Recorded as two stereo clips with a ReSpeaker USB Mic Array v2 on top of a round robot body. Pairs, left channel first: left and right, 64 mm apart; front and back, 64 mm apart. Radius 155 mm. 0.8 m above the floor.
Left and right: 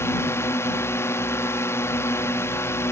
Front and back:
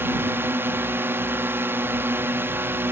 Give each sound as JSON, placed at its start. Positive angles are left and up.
{"t": 0.0, "sound": "a drone", "azimuth_deg": 130}